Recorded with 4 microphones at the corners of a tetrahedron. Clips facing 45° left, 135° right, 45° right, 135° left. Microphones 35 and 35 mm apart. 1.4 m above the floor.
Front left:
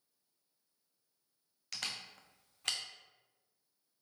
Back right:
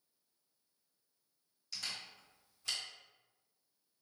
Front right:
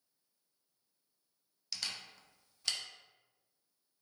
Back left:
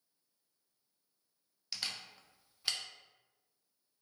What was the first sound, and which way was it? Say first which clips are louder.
A camera shutter: front left 2 dB, even; 60° left.